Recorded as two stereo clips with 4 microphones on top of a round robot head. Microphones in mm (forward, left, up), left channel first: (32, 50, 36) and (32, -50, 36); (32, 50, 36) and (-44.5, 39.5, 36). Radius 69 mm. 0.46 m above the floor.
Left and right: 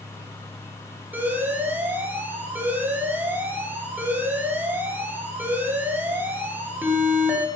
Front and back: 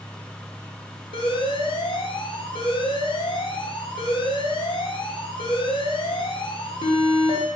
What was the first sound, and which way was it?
An alarm, 20° right.